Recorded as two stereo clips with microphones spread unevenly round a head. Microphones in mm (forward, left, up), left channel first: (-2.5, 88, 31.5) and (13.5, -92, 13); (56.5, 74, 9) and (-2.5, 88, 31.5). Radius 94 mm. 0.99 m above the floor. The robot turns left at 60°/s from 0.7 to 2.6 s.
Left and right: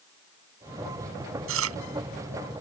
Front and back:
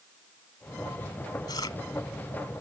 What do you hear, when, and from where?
1.5 s chewing: 70° right; by 1.8 s 85° right